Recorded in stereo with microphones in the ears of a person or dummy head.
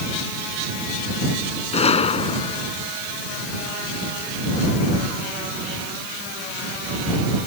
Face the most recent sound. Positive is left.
turn(degrees=30)  # may be behind; listen again after turning